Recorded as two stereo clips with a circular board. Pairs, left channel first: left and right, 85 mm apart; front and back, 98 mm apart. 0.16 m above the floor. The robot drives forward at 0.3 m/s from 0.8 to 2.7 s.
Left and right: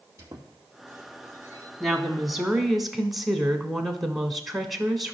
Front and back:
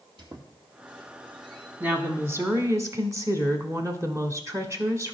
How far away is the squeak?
About 2 m.